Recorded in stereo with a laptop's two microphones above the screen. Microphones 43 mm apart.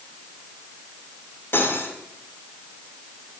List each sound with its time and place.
1.5 s cutlery clinking: 60° left (ahead or behind), 1.5 m